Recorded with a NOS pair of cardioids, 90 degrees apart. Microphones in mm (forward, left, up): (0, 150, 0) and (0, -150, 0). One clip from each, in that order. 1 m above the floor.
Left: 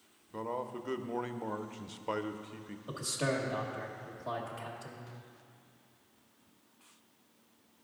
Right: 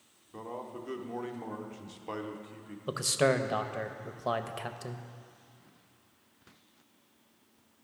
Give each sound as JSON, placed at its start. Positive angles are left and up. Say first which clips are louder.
{"t": 0.3, "sound": "a man speaking", "louder": "left 3 dB", "azimuth_deg": 15, "distance_m": 0.5}
{"t": 2.9, "sound": "a man speaking", "louder": "right 7 dB", "azimuth_deg": -55, "distance_m": 0.7}